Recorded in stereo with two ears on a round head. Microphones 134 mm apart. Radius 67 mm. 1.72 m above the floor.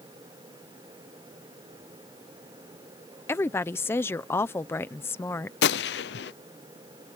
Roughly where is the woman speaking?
Centre.